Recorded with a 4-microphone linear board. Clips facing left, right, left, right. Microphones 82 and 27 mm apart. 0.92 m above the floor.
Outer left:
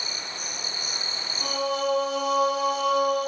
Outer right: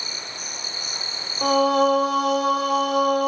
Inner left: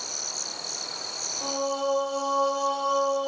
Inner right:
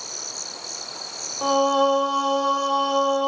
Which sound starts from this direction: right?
Singing, at 1.4 s.